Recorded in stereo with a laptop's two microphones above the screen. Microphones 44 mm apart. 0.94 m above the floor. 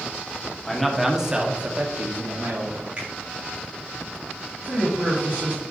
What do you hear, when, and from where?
0.7 s a man speaking: 5° left (ahead or behind), 1.6 m; by 2.9 s 65° right (ahead or behind), 1.9 m
3.0 s a finger snap: 30° right (ahead or behind), 3 m
4.6 s a man speaking: 35° right (ahead or behind), 2.5 m